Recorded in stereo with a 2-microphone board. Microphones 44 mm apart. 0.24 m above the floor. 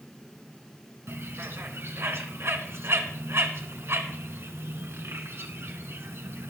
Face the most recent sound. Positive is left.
turn(degrees=-65)  # may be behind; listen again after turning